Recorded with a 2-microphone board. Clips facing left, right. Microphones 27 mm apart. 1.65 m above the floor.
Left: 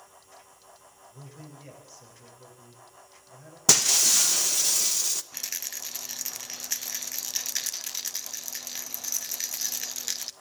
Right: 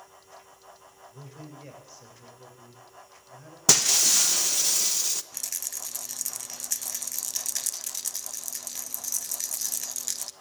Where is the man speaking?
20° right (ahead or behind), 7.5 m.